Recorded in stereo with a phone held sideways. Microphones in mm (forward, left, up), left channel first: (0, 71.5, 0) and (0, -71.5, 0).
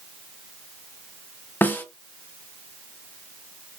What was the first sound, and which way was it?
A snare drum, 15° left (ahead or behind).